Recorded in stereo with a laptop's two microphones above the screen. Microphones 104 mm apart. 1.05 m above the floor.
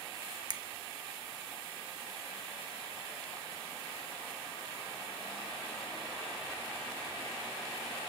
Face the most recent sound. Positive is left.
turn(degrees=-45)  # may be behind; listen again after turning